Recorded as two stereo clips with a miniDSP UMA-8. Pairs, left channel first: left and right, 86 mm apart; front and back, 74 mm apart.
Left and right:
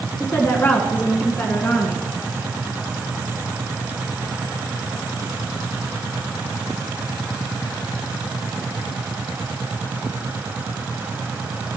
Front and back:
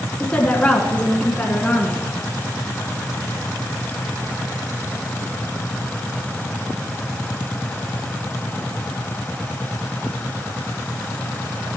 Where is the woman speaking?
60° left, 1.3 m.